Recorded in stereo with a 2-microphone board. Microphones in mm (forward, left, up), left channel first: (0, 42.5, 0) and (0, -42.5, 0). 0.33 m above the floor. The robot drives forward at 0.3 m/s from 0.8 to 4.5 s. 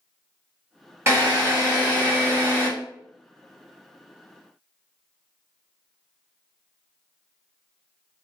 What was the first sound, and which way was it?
A drill, 30° right (ahead or behind).